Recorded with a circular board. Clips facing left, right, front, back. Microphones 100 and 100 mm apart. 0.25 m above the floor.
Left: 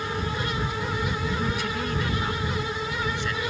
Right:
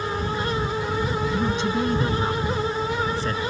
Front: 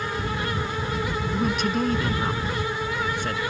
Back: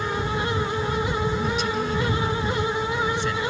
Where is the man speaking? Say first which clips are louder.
Right 5 dB, front 1 dB; 25° right; by 3.4 s 40° right.